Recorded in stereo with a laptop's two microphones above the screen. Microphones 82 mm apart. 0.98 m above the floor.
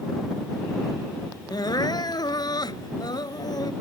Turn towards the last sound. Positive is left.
turn(degrees=55)  # may be behind; listen again after turning